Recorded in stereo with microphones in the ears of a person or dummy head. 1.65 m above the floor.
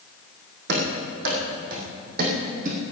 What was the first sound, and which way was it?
Running footsteps, 65° right (ahead or behind).